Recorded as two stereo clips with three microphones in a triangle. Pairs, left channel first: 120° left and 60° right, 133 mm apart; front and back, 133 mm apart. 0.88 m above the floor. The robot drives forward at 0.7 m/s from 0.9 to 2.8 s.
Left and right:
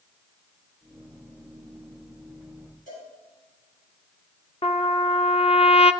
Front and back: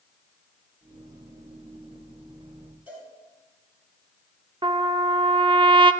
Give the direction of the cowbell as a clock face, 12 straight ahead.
9 o'clock.